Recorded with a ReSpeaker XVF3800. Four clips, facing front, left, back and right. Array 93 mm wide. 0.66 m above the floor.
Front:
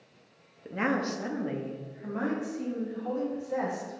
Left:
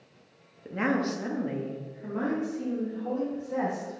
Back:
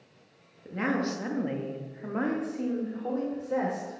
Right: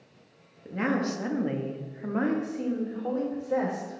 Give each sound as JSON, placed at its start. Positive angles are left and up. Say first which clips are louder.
{"t": 0.7, "sound": "a woman speaking", "louder": "even, even", "azimuth_deg": 40, "distance_m": 0.9}